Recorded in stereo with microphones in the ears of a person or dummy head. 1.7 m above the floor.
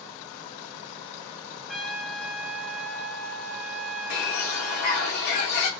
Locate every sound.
1.7 s a trumpet: centre (ahead or behind), 0.5 m
4.1 s a bird: 55° left (ahead or behind), 0.8 m